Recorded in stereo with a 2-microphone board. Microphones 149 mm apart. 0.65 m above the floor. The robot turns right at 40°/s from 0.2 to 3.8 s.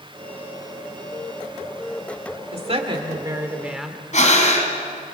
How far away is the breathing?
About 3 m.